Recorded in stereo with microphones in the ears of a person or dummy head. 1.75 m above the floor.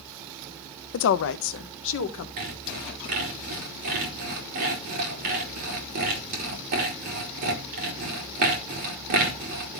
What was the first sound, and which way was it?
A woman speaking, 75° left (ahead or behind).